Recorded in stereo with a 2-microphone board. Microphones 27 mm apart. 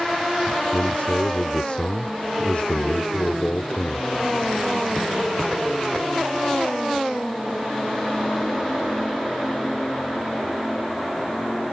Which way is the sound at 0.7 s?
50° left (ahead or behind).